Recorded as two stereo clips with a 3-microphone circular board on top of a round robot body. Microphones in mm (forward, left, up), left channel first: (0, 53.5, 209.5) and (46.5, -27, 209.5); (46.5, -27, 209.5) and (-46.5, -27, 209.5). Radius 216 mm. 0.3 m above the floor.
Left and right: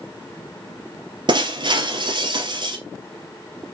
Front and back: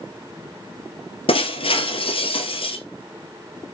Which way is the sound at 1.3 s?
25° right.